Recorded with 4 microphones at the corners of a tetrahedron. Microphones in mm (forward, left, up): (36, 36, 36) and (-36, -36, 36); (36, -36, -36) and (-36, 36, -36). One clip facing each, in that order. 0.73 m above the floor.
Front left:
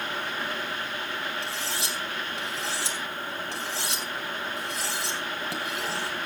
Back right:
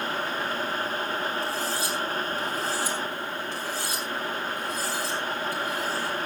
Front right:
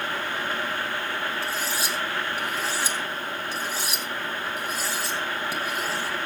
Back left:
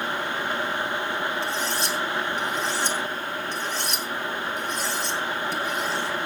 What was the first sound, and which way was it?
Cutlery clinking, 40° left.